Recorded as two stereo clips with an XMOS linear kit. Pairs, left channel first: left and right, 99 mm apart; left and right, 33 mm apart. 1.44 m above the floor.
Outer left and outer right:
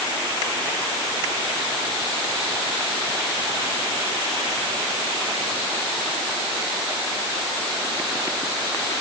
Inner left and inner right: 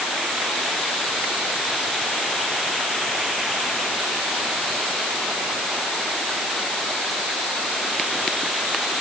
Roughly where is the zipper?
No zipper in this recording.